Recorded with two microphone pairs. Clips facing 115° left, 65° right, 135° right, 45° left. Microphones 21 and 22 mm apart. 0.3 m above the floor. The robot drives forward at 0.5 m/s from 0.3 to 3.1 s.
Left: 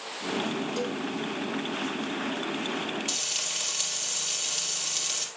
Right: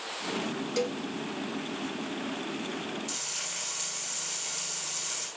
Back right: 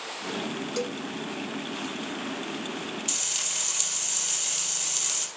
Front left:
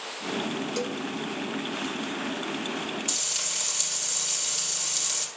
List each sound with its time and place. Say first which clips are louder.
0.8 s a cowbell: even, even; 40° right, 1.0 m; by 1.0 s 50° right, 0.9 m
3.1 s frying: left 5 dB, back right 1 dB; 150° left, 4 m